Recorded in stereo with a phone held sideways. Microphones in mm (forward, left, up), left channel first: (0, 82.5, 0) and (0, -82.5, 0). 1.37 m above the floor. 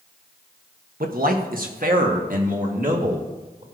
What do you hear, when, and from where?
1.0 s a man speaking: 60° right (ahead or behind), 1.3 m; by 3.6 s 55° right (ahead or behind), 2.5 m